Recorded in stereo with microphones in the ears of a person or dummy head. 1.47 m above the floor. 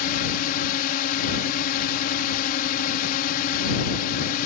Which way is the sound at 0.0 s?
50° left (ahead or behind).